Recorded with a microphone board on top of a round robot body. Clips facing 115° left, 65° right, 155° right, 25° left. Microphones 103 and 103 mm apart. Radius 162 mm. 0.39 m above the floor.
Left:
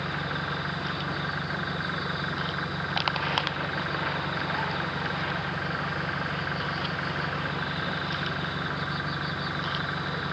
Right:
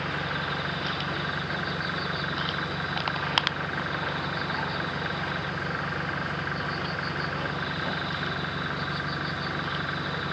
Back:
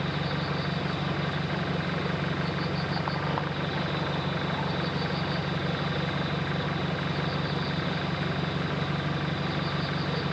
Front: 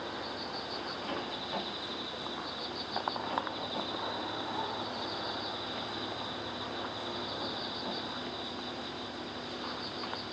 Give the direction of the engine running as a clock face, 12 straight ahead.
5 o'clock.